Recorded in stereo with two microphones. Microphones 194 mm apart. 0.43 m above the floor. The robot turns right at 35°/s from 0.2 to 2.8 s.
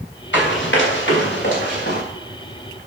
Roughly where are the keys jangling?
No keys jangling in this recording.